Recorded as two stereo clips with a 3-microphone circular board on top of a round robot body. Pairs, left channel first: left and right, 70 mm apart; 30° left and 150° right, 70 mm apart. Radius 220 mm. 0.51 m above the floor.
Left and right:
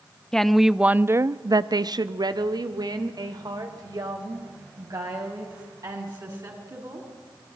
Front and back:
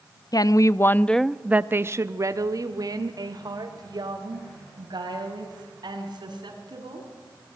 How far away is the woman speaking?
About 1.1 m.